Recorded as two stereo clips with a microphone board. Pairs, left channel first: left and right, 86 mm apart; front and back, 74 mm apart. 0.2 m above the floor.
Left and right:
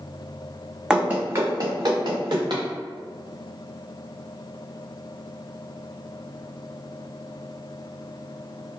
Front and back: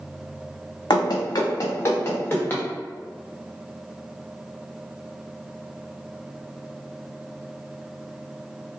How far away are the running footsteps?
About 0.6 m.